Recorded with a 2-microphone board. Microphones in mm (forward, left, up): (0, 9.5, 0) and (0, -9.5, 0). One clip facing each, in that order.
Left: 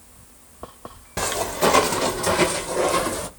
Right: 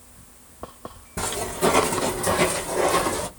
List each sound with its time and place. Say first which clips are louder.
1.2 s footsteps: left 3 dB; 65° left (ahead or behind), 1.1 m; by 3.3 s centre (ahead or behind), 1.0 m